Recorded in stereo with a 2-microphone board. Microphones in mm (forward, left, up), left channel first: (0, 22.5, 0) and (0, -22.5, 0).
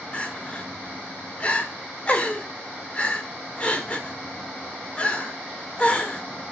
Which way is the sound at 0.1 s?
30° left (ahead or behind).